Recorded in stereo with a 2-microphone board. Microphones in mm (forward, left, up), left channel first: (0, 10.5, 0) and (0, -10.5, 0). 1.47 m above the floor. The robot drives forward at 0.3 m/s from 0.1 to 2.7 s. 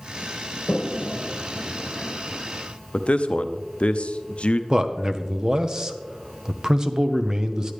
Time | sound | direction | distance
0.7 | a toilet flushing | 75° left (ahead or behind) | 0.8 m
2.9 | a man speaking | 65° left (ahead or behind) | 0.6 m
4.7 | a man speaking | 35° right (ahead or behind) | 0.7 m